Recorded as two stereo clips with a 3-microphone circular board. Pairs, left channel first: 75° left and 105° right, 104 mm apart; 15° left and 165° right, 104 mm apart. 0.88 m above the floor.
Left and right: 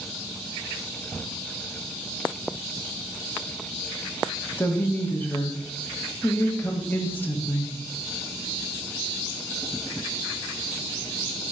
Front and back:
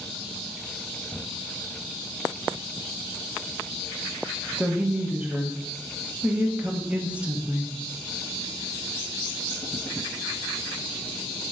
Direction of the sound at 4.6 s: 130° left.